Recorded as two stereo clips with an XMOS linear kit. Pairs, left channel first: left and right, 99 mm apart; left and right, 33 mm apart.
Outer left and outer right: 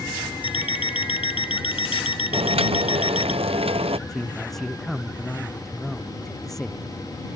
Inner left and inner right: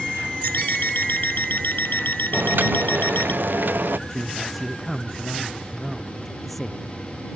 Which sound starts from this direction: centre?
A man speaking, at 4.1 s.